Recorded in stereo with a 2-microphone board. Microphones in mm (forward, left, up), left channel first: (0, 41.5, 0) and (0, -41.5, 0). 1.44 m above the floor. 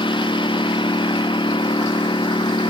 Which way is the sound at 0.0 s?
80° left.